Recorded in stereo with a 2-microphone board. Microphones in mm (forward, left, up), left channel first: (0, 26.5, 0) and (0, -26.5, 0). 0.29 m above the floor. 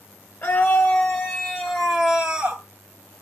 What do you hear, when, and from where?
0.4 s a scream: 40° left (ahead or behind), 1.3 m; by 2.6 s 20° right (ahead or behind), 1.2 m